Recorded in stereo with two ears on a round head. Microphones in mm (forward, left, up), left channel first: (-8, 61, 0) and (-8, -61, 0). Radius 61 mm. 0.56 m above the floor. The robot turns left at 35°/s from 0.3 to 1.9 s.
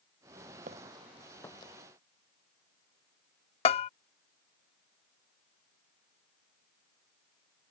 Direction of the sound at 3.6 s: 45° left (ahead or behind).